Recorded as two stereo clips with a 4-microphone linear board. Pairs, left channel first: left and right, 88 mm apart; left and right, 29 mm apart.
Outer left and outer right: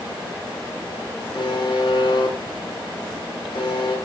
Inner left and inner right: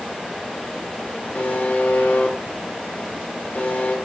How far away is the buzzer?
About 3.5 m.